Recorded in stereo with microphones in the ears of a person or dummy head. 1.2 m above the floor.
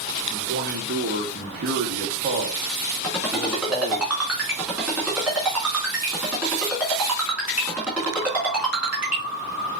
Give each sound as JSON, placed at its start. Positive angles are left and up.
{"t": 0.3, "sound": "a man speaking", "side_deg": -40, "distance_m": 0.9}
{"t": 3.0, "sound": "a ringtone", "side_deg": -5, "distance_m": 2.5}